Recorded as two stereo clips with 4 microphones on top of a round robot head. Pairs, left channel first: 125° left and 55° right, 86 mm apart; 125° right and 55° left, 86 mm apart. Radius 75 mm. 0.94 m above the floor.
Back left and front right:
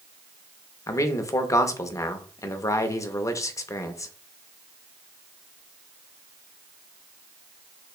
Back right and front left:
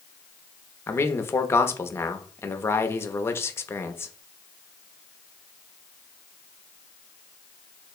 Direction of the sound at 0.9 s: 175° left.